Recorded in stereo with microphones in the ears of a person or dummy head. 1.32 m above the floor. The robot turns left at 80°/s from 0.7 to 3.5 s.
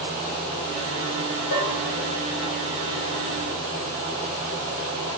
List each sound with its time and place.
1.5 s a bell: 55° left (ahead or behind), 2 m; by 1.9 s 85° left, 2 m